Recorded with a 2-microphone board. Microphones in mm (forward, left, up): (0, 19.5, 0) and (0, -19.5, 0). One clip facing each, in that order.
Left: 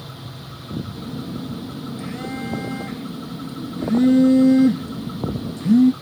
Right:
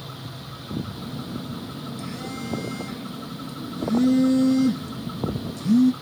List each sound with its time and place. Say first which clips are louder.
0.9 s a phone buzzing: left 3 dB; 35° left (ahead or behind), 1.3 m